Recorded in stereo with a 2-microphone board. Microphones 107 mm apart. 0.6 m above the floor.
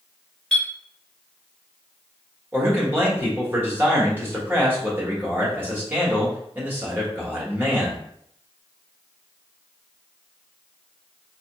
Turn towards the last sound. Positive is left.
turn(degrees=-20)  # may be behind; listen again after turning